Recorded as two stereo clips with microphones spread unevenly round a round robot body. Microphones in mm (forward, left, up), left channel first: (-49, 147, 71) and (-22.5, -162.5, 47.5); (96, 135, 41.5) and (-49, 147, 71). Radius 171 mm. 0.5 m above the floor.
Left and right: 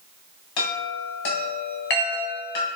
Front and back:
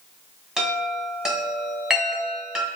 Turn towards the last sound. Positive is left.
turn(degrees=90)